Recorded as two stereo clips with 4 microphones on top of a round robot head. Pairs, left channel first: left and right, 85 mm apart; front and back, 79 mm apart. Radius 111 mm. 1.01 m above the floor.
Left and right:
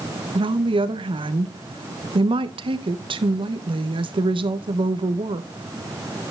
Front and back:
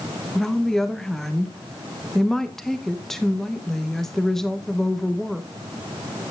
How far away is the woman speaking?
About 1.0 m.